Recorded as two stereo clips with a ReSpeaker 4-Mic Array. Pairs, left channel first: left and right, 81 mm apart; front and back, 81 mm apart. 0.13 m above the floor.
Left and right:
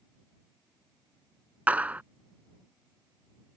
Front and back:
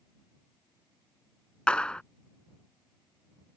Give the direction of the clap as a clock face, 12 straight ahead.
2 o'clock.